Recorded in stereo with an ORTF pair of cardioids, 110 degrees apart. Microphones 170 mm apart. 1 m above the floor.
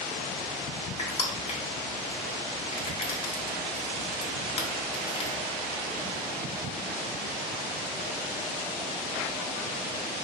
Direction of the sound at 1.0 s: 35° left.